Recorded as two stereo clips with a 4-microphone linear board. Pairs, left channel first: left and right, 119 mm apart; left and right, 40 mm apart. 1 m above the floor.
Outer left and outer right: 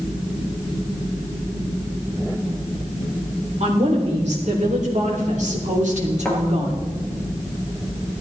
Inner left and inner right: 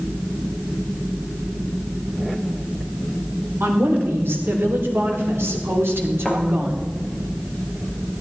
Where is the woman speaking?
70° right (ahead or behind), 4 m; by 6.8 s 65° right (ahead or behind), 3 m.